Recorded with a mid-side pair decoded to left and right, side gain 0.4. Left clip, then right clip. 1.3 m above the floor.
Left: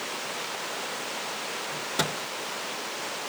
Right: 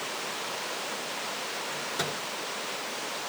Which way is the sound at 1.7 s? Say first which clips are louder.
Left 4 dB; 65° left.